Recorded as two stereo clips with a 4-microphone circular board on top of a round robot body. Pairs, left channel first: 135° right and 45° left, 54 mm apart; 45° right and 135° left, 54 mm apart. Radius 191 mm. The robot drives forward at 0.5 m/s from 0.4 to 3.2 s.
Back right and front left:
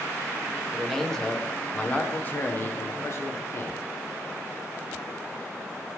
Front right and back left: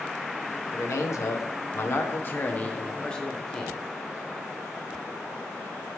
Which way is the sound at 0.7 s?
50° right.